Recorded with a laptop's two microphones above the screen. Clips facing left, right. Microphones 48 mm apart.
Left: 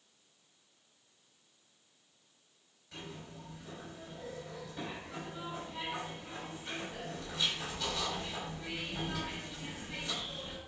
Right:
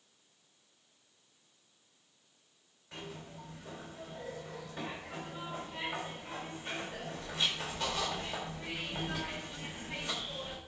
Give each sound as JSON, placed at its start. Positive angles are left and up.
{"t": 2.9, "sound": "a zipper", "side_deg": -45, "distance_m": 4.0}